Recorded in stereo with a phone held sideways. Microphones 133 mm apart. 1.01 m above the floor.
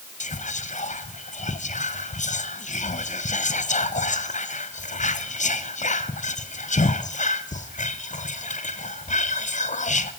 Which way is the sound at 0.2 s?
65° left (ahead or behind).